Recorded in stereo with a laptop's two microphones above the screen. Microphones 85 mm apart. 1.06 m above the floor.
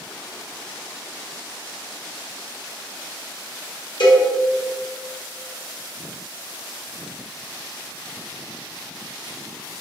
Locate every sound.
4.0 s a cowbell: 65° left (ahead or behind), 0.8 m